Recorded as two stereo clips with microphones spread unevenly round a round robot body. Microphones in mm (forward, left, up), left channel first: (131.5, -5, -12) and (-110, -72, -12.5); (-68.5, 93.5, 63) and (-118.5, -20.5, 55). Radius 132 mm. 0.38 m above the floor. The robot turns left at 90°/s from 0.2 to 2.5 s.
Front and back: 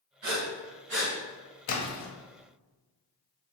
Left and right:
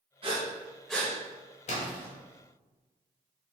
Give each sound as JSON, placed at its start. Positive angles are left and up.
{"t": 0.2, "sound": "breathing", "azimuth_deg": -140, "distance_m": 1.3}
{"t": 1.7, "sound": "a splash", "azimuth_deg": 40, "distance_m": 0.7}